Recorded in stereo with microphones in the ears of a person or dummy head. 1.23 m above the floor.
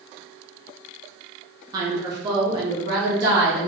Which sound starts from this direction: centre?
A woman speaking, at 1.7 s.